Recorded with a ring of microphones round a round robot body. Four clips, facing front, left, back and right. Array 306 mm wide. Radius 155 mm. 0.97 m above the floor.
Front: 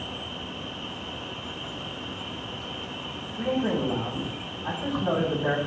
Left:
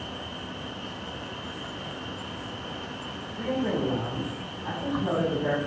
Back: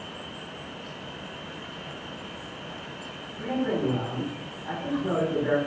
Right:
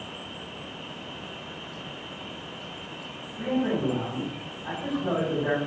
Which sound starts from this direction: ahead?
A man speaking, at 3.4 s.